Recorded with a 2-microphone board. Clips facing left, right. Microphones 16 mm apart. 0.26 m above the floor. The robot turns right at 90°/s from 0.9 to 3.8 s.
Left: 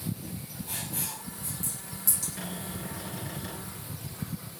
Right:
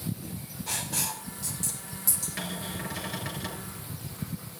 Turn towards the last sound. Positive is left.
turn(degrees=-5)